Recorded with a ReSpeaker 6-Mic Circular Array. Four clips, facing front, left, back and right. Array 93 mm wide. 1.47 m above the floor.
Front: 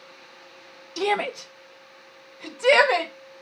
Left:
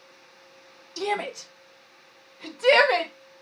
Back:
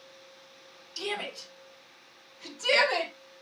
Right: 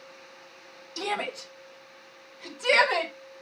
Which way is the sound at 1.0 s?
Straight ahead.